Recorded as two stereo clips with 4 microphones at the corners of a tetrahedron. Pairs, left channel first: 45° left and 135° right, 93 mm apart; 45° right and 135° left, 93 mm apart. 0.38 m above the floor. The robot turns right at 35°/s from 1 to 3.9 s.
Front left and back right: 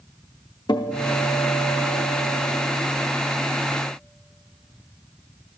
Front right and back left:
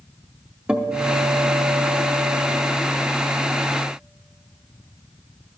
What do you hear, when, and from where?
0.7 s a guitar: 65° left, 0.6 m; by 2.6 s 120° left, 0.6 m